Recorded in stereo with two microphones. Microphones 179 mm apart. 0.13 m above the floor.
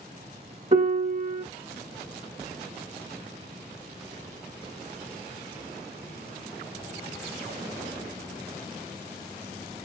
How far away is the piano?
About 0.7 m.